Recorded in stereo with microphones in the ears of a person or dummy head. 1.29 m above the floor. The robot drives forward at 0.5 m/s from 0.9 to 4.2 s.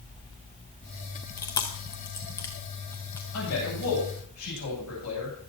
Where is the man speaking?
85° left, 9.5 m; by 5.5 s 80° left, 9.5 m.